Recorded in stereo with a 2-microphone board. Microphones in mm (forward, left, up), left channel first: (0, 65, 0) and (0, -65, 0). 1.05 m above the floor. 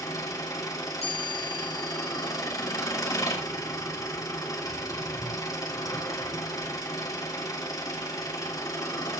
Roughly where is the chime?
Left.